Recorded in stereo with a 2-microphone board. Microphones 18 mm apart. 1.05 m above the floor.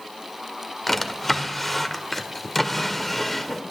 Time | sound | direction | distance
0.9 | a drawer | 5° left (ahead or behind) | 1.3 m